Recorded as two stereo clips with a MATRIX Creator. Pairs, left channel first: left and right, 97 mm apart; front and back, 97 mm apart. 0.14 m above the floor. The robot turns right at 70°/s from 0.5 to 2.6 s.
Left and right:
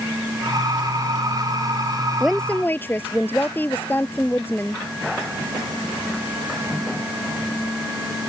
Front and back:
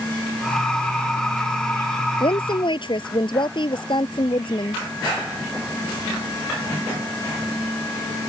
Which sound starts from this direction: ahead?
A woman speaking, at 2.2 s.